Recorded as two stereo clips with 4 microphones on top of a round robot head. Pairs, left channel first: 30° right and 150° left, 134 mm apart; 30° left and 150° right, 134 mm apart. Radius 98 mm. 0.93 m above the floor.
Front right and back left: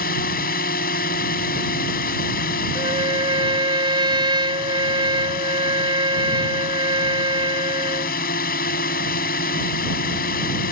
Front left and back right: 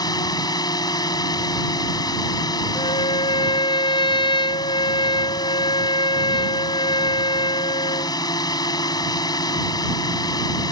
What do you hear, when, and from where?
0.0 s a drone: 30° right
2.8 s a trumpet: 90° left